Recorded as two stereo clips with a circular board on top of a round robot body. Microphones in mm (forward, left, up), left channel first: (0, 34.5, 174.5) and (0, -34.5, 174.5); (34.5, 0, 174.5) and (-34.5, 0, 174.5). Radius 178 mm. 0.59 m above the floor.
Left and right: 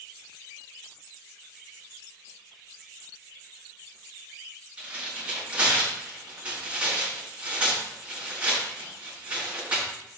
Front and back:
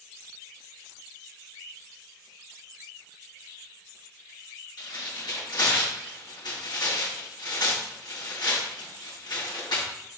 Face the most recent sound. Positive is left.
turn(degrees=-20)